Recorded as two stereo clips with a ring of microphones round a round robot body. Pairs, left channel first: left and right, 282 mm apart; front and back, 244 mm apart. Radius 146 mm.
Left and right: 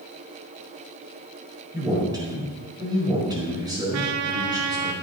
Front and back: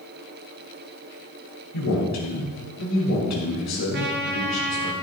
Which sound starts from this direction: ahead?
A man speaking, at 1.7 s.